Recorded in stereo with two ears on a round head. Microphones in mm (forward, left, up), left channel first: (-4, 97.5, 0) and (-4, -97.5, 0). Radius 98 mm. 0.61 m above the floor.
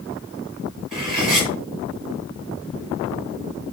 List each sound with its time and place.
0.9 s cutlery clinking: centre (ahead or behind), 7.5 m